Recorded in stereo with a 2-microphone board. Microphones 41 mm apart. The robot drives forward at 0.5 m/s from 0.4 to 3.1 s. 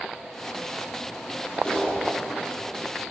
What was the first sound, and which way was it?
A clap, 15° left (ahead or behind).